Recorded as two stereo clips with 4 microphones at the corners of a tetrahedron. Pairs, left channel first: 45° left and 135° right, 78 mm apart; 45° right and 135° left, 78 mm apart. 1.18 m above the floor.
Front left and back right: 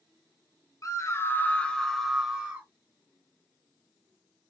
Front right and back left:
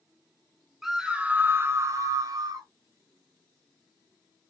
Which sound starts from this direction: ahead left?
A scream, at 0.8 s.